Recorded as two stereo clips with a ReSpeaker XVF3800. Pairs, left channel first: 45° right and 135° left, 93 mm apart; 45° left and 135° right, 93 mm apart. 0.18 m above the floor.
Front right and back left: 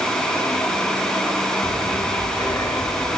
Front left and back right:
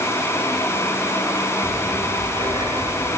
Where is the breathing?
95° right, 1.1 m.